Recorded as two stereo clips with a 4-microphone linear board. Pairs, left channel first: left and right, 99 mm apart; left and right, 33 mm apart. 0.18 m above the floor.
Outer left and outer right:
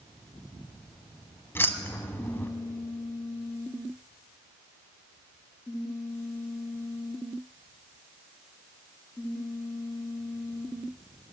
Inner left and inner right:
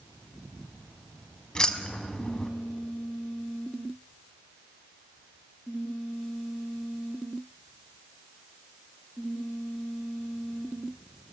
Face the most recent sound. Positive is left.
turn(degrees=25)  # may be behind; listen again after turning